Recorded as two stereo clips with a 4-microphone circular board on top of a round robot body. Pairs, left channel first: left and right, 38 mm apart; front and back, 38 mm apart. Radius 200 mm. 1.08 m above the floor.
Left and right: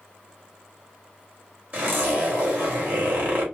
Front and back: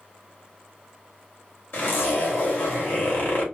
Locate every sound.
1.7 s a zipper: 40° right, 2 m